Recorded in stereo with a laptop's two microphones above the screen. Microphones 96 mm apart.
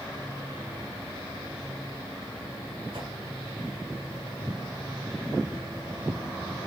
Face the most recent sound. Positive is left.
turn(degrees=-60)  # may be behind; listen again after turning